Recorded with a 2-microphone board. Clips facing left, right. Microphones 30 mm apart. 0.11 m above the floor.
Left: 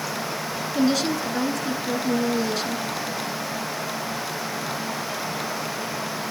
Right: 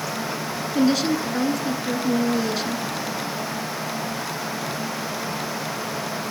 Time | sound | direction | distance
0.8 | a woman speaking | 5° right (ahead or behind) | 1.1 m